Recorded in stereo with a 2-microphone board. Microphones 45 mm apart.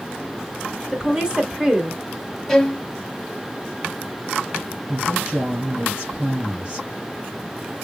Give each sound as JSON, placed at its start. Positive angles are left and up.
{"t": 0.9, "sound": "a woman speaking", "side_deg": -20, "distance_m": 1.5}
{"t": 2.5, "sound": "a violin", "side_deg": 5, "distance_m": 0.8}
{"t": 4.9, "sound": "a woman speaking", "side_deg": -30, "distance_m": 3.0}